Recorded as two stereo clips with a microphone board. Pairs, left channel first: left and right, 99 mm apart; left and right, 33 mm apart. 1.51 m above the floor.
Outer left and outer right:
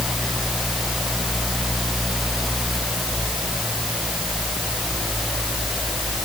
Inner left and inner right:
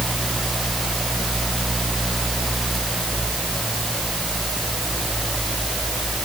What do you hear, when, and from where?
Only background noise.